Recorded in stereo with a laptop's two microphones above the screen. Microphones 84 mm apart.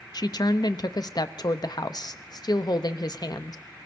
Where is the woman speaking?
55° left (ahead or behind), 0.8 m.